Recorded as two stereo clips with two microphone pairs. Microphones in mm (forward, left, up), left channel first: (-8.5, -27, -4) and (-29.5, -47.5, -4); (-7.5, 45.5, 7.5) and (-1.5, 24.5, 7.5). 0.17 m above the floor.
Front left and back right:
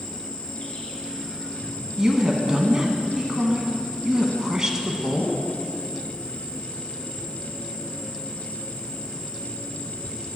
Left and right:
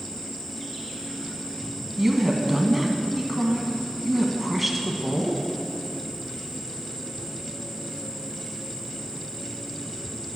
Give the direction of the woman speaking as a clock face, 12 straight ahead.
6 o'clock.